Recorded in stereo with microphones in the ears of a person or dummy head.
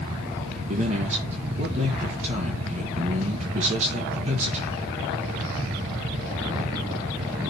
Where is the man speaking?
40° right (ahead or behind), 1.3 m.